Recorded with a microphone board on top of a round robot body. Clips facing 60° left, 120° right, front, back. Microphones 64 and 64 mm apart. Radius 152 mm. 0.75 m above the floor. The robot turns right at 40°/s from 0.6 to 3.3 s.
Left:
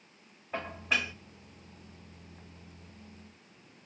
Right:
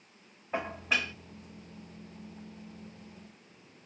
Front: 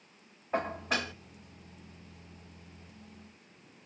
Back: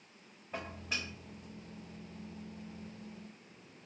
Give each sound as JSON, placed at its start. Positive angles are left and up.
{"t": 0.5, "sound": "dishes clattering", "azimuth_deg": -40, "distance_m": 0.5}